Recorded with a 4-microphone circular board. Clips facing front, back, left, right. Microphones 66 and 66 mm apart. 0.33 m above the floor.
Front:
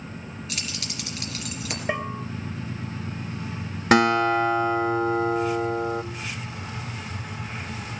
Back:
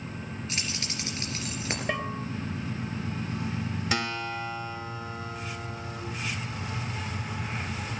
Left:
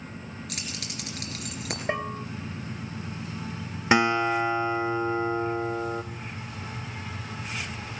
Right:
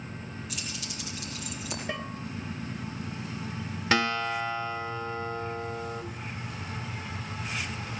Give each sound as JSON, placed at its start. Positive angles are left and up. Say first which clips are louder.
{"t": 0.5, "sound": "keys jangling", "louder": "front 1 dB, left 1 dB", "azimuth_deg": 120, "distance_m": 3.5}
{"t": 1.9, "sound": "a bell", "louder": "front 4 dB, left 8 dB", "azimuth_deg": 65, "distance_m": 0.9}
{"t": 3.9, "sound": "a guitar", "louder": "front 15 dB, left 5 dB", "azimuth_deg": 25, "distance_m": 0.5}